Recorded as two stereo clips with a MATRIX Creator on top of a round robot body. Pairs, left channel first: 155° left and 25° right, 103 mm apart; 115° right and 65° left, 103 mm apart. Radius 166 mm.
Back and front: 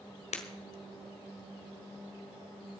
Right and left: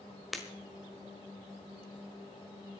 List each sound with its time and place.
0.3 s breaking glass: 155° left, 1.5 m